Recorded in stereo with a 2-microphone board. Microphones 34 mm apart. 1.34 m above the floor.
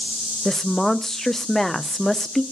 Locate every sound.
0.5 s a woman speaking: 10° left (ahead or behind), 0.5 m